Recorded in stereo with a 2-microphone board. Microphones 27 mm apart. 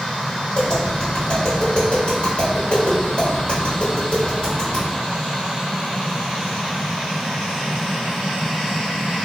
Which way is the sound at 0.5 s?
40° left (ahead or behind).